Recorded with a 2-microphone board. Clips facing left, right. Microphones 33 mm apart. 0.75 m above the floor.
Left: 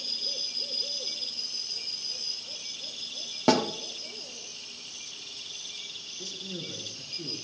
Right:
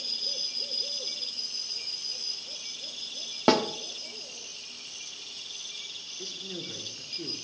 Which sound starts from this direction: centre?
A snare drum, at 3.5 s.